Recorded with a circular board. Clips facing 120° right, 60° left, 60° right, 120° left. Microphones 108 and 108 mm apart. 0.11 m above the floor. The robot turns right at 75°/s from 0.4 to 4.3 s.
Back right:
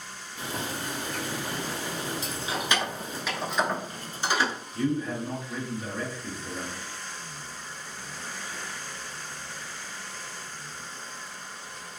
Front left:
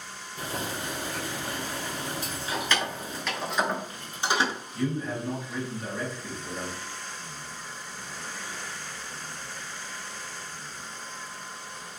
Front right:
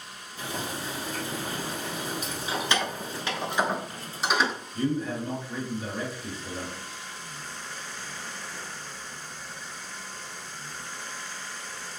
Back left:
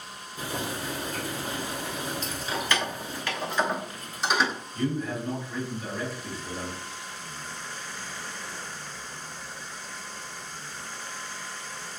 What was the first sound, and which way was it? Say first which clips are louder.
Boiling: even, back left 1 dB; 90° left.